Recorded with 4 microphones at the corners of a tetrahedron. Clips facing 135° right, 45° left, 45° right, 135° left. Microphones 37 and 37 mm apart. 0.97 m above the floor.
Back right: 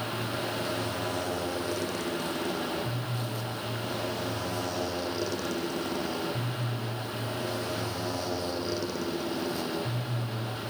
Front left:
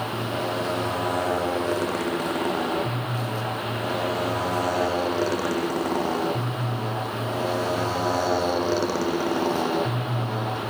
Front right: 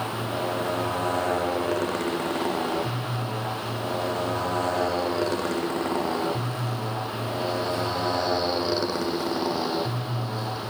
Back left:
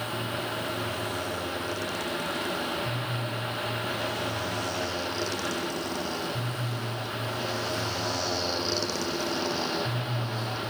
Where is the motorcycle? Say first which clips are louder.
Front left 5 dB, front right 4 dB; straight ahead; by 10.7 s 30° left.